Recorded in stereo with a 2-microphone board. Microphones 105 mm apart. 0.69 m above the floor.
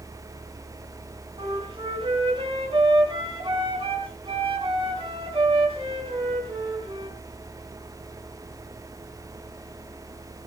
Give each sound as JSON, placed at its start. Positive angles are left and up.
{"t": 1.4, "sound": "a flute", "side_deg": -60, "distance_m": 4.0}